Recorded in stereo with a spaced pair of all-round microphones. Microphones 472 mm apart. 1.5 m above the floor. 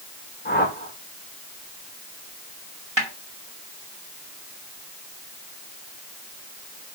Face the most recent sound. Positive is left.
turn(degrees=-70)  # may be behind; listen again after turning